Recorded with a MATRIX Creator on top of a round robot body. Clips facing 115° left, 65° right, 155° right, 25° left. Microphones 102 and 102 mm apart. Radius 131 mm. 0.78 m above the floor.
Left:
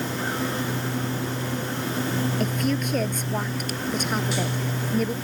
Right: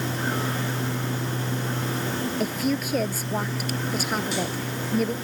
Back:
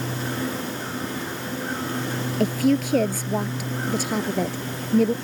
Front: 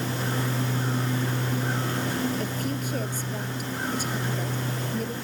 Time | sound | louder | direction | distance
2.4 | a woman speaking | even, back 10 dB | 155° right | ?